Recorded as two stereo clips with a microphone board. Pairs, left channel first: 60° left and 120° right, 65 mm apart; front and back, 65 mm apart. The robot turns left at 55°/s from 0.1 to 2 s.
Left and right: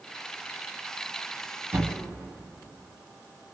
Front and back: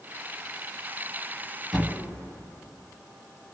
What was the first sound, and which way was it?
A thud, 90° right.